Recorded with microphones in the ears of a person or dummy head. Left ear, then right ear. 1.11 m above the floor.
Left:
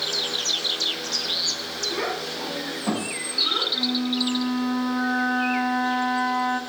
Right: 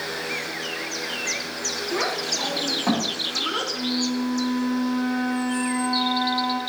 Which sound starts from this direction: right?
A child speaking, at 1.9 s.